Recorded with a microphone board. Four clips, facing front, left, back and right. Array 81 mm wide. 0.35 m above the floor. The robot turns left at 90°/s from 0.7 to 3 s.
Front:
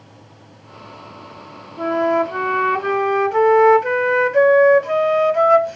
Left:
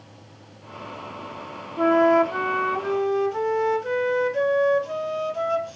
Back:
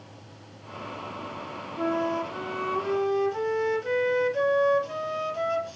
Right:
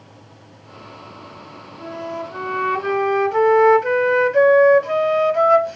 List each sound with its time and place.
1.8 s a flute: 75° left, 0.8 m; by 5.8 s 35° right, 0.8 m